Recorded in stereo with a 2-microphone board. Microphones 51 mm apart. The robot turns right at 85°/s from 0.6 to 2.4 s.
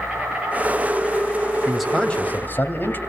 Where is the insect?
25° right, 8.5 m; by 3.1 s 130° left, 8.5 m.